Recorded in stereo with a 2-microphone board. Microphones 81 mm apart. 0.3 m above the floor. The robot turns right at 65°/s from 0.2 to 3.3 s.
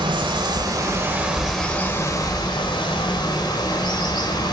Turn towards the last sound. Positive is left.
turn(degrees=115)